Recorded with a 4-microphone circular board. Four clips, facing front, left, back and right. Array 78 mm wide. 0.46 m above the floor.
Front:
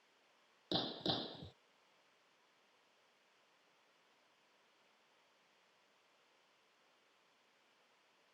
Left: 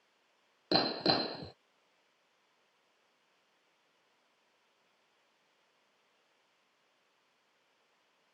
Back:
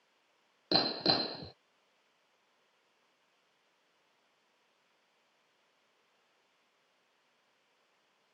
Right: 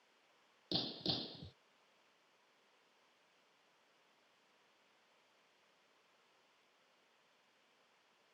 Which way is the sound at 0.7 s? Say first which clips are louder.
Left 13 dB, back 9 dB; 120° left.